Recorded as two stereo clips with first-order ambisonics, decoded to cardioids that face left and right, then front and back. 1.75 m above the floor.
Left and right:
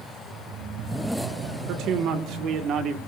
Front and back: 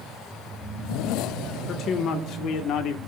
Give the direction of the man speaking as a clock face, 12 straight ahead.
2 o'clock.